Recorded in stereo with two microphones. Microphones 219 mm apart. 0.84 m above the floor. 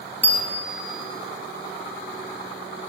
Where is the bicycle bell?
10° left (ahead or behind), 5.5 m.